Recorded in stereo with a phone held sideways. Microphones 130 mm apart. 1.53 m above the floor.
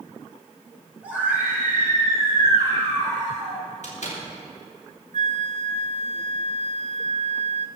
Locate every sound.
1.0 s a scream: 10° right (ahead or behind), 7 m; by 3.6 s 45° right (ahead or behind), 7 m
3.8 s a door slam: 65° left (ahead or behind), 3.5 m
5.1 s a flute: 65° right (ahead or behind), 0.5 m